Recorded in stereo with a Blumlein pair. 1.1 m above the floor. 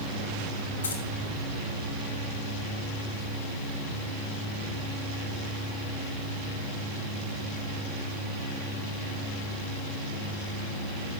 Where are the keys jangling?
70° left, 1.9 m.